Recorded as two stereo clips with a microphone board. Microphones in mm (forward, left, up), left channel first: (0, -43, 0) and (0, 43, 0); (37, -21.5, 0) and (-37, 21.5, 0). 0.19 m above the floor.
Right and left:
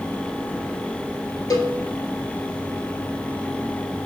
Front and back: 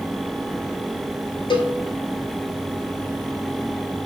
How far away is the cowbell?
About 0.8 m.